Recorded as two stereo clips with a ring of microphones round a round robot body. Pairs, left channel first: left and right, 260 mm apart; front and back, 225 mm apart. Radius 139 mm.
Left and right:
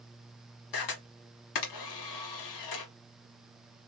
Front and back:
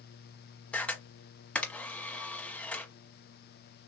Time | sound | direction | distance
0.7 | a camera shutter | 85° left | 1.1 m